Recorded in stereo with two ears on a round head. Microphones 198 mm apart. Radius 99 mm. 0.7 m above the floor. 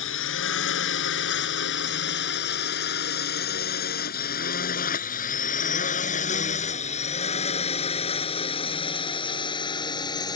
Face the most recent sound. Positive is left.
turn(degrees=20)  # may be behind; listen again after turning